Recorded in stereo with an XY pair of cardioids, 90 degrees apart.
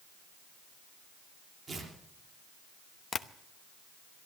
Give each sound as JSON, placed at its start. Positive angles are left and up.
{"t": 1.7, "sound": "tearing paper", "azimuth_deg": -50, "distance_m": 4.0}
{"t": 3.1, "sound": "tapping", "azimuth_deg": 40, "distance_m": 0.9}